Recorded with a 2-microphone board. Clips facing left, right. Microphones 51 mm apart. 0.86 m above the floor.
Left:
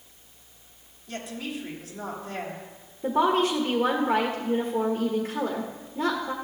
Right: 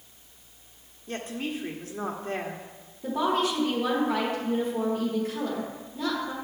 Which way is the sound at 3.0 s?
25° left (ahead or behind).